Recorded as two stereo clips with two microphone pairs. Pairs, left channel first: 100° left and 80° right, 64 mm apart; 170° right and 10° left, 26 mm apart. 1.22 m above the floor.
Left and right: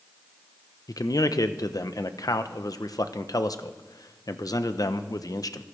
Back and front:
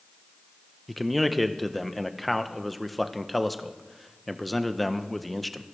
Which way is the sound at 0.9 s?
105° left.